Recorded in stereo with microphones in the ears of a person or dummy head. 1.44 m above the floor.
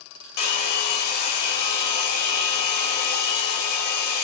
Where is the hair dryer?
55° left (ahead or behind), 1.0 m.